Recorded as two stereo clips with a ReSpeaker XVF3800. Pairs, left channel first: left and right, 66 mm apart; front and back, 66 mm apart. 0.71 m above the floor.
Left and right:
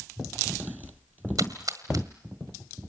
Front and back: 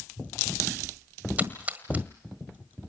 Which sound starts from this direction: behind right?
A splash, at 1.4 s.